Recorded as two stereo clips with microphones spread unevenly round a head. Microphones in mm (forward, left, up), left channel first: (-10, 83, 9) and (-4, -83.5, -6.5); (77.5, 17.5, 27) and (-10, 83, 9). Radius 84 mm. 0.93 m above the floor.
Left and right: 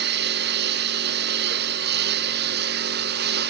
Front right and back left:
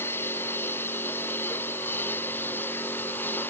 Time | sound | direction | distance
0.0 | a lawn mower | 115° right | ?